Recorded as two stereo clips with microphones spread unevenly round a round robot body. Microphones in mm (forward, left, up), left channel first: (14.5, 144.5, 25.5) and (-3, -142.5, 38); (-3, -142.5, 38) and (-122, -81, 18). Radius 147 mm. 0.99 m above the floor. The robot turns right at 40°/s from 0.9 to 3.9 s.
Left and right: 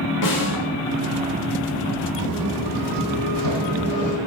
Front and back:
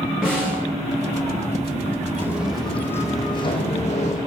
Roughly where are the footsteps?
Behind right.